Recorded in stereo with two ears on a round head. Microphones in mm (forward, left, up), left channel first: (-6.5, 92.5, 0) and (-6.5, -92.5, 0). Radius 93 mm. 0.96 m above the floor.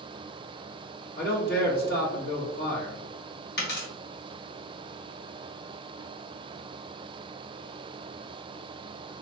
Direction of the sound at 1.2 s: 45° left (ahead or behind).